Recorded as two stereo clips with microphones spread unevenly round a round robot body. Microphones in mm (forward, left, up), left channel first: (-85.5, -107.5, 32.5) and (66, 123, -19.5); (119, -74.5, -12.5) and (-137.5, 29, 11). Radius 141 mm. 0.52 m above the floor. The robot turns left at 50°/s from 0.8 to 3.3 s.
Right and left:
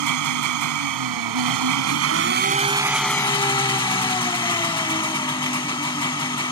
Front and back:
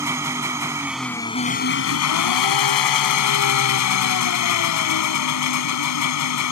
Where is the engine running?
80° left; by 6.5 s 45° right.